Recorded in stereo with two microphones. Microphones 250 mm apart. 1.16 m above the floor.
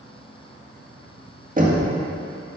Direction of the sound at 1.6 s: 35° right (ahead or behind).